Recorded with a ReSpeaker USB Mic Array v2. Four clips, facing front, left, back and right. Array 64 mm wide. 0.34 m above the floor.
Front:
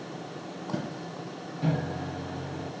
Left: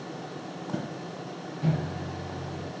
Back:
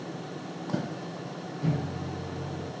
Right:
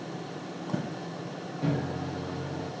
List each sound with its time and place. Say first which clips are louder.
1.6 s a microwave: even, front 2 dB; straight ahead, 2 m